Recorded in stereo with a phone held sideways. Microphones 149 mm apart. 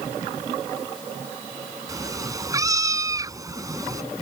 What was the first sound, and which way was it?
A cat meowing, 20° right (ahead or behind).